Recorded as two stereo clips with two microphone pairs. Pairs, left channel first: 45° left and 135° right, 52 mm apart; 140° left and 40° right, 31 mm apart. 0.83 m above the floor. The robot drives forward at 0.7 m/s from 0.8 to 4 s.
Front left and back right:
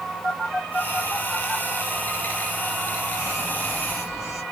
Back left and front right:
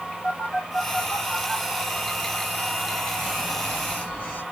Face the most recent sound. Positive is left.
turn(degrees=135)